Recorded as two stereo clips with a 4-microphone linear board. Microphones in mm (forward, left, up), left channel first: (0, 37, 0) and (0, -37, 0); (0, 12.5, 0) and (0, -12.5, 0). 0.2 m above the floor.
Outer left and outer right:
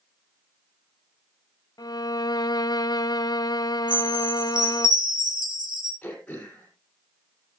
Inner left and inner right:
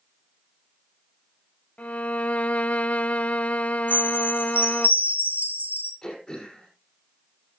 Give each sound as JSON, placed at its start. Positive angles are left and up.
{"t": 1.8, "sound": "a violin", "side_deg": 55, "distance_m": 0.5}
{"t": 3.9, "sound": "a chime", "side_deg": -75, "distance_m": 4.5}
{"t": 6.0, "sound": "throat clearing", "side_deg": 15, "distance_m": 5.0}